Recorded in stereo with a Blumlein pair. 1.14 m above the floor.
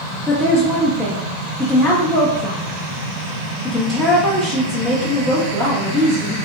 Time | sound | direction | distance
0.3 | a woman speaking | 5° left | 0.5 m